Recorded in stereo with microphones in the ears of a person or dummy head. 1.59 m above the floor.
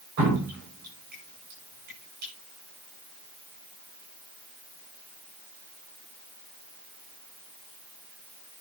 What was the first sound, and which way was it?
Dripping, 50° right (ahead or behind).